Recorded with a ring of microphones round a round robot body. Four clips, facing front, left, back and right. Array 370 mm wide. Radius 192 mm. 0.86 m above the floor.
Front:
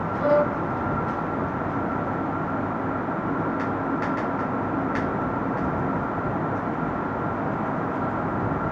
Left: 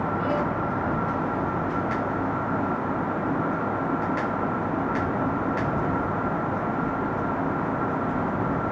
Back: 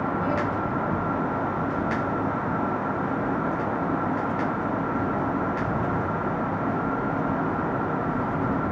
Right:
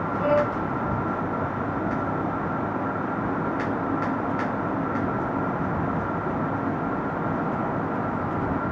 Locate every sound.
0.2 s a violin: 30° right